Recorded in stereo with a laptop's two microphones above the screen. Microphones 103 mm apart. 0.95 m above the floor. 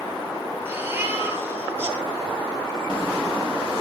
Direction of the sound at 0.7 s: 20° right (ahead or behind).